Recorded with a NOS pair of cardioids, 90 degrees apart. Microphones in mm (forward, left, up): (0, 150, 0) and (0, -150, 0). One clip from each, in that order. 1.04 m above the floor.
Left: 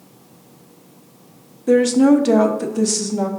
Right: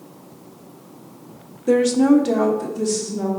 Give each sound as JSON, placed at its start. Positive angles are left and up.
{"t": 1.7, "sound": "a woman speaking", "azimuth_deg": -5, "distance_m": 0.8}